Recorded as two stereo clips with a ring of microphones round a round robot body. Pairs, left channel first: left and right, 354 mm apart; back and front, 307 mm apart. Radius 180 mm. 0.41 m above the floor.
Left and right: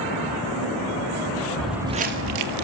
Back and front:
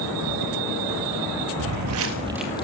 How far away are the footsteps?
About 0.7 m.